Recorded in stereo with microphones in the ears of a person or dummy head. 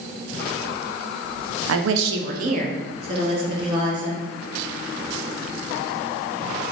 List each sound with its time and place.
1.7 s a woman speaking: 85° right, 0.6 m; by 4.2 s 30° right (ahead or behind), 2.5 m